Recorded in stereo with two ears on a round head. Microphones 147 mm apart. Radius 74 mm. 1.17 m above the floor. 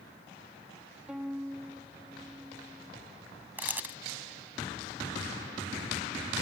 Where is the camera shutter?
10° right (ahead or behind).